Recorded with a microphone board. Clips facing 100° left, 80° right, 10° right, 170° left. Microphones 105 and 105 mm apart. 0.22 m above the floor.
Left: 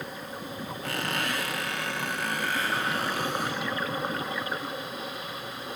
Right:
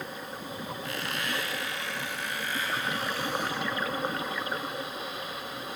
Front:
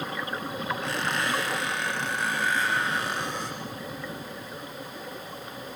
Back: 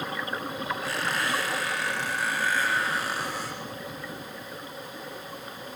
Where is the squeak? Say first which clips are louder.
Left 5 dB, front 1 dB; 85° left, 7 m.